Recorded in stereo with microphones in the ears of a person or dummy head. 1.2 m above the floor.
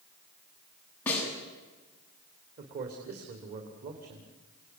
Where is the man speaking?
50° right (ahead or behind), 3 m.